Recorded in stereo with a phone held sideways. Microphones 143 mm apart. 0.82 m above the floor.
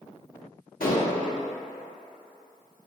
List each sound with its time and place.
0.8 s dishes clattering: 80° left, 0.8 m